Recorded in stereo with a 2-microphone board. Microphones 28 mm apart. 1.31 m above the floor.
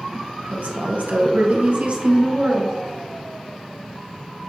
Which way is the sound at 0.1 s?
75° right (ahead or behind).